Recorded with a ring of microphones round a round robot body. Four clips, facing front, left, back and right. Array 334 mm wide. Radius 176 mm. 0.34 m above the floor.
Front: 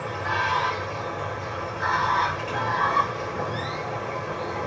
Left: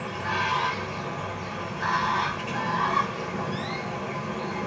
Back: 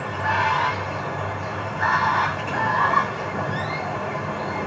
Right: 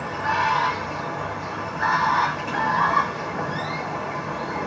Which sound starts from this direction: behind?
Running water, at 0.0 s.